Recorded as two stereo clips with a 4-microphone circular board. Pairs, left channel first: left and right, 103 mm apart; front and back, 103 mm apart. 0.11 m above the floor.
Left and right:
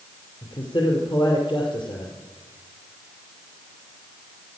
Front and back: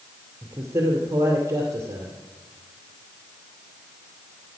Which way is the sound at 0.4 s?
120° left.